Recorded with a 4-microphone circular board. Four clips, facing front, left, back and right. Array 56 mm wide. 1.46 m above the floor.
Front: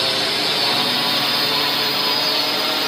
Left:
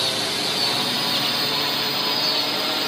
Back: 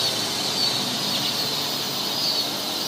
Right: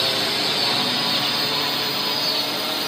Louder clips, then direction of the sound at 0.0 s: Right 2 dB, front 6 dB; 25° right.